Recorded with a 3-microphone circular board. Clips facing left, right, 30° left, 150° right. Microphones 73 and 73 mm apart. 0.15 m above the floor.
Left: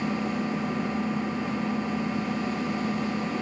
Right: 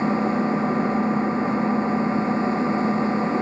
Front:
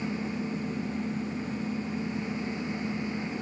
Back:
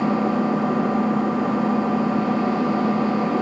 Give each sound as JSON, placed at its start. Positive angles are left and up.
{"t": 0.0, "sound": "an engine running", "azimuth_deg": -145}